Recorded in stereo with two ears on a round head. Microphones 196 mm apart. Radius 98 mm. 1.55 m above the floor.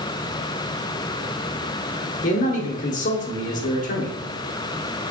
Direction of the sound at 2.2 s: 35° left (ahead or behind).